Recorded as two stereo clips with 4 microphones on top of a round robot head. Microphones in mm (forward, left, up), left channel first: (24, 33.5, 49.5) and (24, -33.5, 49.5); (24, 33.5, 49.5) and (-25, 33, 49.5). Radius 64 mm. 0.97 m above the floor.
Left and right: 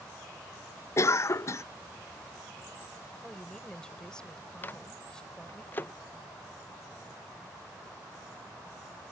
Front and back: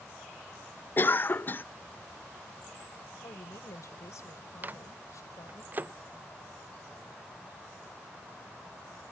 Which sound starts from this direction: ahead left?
A cough, at 1.0 s.